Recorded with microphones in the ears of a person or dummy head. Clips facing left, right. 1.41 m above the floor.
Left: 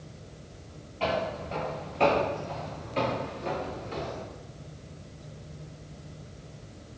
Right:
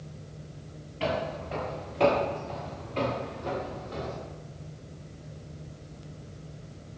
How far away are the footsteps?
About 1.8 m.